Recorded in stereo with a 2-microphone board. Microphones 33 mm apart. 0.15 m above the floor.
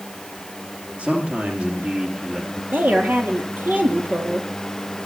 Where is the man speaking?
40° right (ahead or behind), 4.5 m.